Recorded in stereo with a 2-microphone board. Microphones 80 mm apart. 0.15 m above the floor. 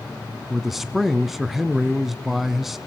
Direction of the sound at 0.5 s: Centre (ahead or behind).